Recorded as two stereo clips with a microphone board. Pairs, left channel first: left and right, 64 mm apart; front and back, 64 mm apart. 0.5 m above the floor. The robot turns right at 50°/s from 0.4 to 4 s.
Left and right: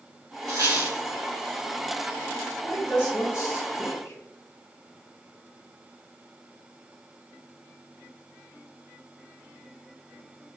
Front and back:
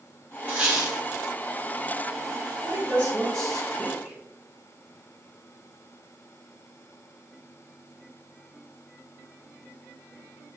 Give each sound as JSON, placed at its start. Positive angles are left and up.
{"t": 0.5, "sound": "a squeak", "azimuth_deg": -120, "distance_m": 1.5}
{"t": 2.6, "sound": "a woman speaking", "azimuth_deg": 35, "distance_m": 2.0}